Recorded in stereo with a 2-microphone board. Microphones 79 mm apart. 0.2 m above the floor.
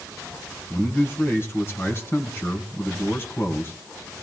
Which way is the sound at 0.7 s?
35° left (ahead or behind).